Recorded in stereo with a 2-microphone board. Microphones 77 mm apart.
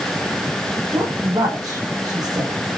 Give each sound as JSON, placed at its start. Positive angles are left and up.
{"t": 0.9, "sound": "a woman speaking", "side_deg": -55, "distance_m": 8.0}